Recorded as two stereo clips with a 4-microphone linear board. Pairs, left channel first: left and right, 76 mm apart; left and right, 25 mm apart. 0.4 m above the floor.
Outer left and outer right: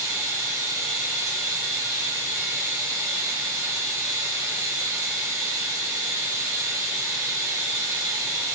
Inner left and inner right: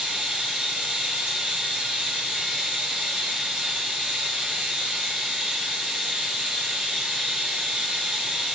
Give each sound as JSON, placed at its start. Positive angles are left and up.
{"t": 0.0, "sound": "running water", "side_deg": -45, "distance_m": 1.1}